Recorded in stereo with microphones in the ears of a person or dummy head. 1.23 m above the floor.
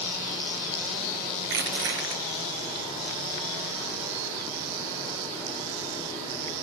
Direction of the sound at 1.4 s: 65° right (ahead or behind).